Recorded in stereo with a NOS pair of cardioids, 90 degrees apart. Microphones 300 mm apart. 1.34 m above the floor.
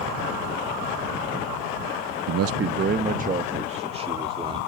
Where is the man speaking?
60° right; by 4.6 s 15° right.